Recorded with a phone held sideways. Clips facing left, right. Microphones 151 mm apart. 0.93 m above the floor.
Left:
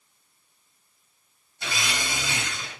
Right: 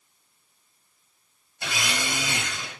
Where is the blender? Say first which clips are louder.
Right 1 dB; 65° right (ahead or behind), 1.6 m.